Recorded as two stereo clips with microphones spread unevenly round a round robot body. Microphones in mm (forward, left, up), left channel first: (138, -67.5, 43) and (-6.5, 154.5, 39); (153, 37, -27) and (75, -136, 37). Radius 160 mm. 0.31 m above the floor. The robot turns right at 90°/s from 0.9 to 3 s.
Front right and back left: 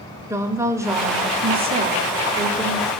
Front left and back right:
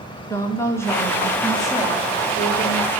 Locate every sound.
0.3 s a woman speaking: 55° left, 1.3 m; by 2.9 s 125° right, 1.3 m